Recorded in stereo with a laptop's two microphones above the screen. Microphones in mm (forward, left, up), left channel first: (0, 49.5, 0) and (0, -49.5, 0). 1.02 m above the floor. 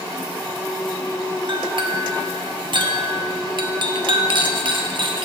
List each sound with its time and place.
1.5 s a clink: 55° right (ahead or behind), 1.1 m